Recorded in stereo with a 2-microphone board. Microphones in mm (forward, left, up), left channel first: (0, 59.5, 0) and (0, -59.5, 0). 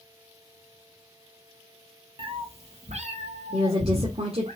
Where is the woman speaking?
55° right (ahead or behind), 2 m.